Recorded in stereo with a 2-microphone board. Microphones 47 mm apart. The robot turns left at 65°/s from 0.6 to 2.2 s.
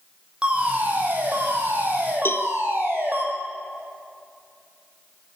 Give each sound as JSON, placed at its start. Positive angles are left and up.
{"t": 0.4, "sound": "a fire alarm", "azimuth_deg": -30, "distance_m": 7.0}
{"t": 2.2, "sound": "a cowbell", "side_deg": 55, "distance_m": 1.8}